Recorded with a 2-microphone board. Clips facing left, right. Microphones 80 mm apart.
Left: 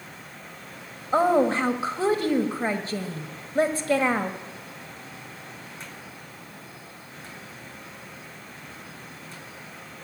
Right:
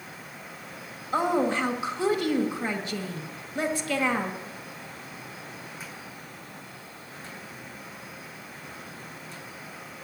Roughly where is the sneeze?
I don't hear a sneeze.